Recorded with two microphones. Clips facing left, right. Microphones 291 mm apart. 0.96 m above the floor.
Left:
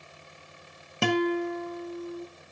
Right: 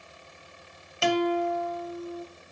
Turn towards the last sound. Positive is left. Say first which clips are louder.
# even
turn(degrees=60)  # may be behind; listen again after turning